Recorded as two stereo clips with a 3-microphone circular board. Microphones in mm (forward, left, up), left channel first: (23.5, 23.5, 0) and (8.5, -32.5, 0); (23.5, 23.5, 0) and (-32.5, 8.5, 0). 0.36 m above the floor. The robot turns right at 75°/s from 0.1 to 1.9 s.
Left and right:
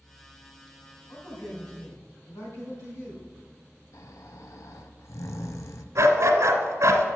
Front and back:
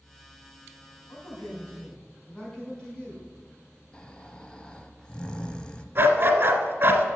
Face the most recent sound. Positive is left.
turn(degrees=-125)